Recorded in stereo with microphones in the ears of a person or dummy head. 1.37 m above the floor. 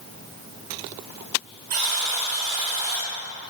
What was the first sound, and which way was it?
A buzzer, 40° right (ahead or behind).